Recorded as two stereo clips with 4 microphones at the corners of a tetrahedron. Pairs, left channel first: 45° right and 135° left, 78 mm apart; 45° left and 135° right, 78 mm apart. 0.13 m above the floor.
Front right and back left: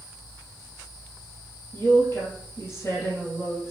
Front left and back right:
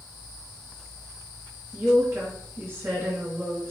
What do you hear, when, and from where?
1.7 s a woman speaking: 90° right, 2.5 m